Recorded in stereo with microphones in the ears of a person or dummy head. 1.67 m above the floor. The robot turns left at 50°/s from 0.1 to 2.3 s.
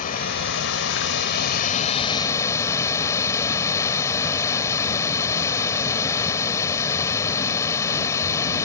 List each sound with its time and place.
0.0 s running water: 130° left; by 8.7 s 20° left